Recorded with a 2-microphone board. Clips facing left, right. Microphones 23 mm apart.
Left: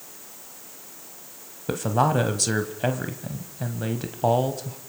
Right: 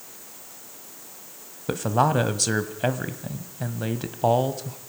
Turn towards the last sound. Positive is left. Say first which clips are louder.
# even
turn(degrees=-5)  # may be behind; listen again after turning